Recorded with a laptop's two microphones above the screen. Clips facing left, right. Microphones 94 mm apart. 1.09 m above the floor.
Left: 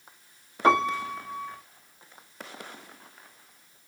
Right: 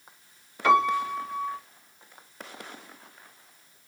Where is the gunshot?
No gunshot in this recording.